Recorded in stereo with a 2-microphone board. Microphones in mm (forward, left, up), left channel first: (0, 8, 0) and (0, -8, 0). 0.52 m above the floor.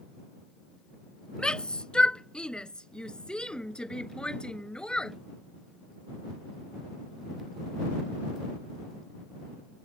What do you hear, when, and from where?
1.4 s a shout: 75° left (ahead or behind); by 5.2 s 70° left (ahead or behind)